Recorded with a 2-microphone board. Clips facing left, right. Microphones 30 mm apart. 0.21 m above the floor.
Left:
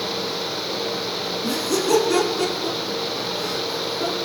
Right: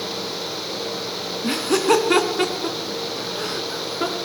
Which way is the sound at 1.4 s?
50° right (ahead or behind).